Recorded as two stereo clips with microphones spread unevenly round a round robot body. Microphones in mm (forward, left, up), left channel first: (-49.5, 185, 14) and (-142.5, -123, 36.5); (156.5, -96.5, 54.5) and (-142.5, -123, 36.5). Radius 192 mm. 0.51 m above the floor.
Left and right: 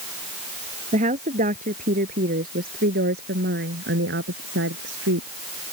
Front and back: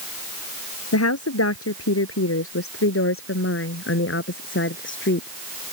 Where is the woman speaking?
35° right; by 5.3 s 45° right.